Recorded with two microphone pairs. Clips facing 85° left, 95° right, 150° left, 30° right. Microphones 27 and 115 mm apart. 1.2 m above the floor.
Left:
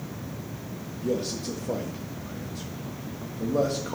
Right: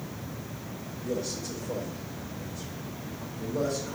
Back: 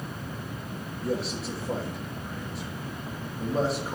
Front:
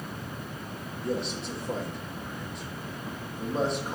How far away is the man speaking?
About 1.3 m.